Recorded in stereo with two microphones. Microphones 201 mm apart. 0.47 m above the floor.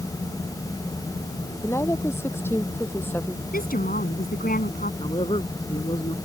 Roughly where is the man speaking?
Left.